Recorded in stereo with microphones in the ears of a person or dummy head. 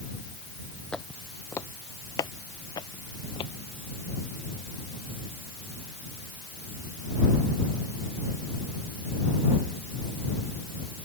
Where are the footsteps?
5° left (ahead or behind); by 3.5 s 25° left (ahead or behind).